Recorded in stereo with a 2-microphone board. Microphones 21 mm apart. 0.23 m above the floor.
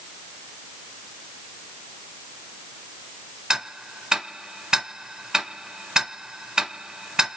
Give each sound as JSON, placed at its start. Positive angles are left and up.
{"t": 3.5, "sound": "ticking", "side_deg": -35, "distance_m": 0.9}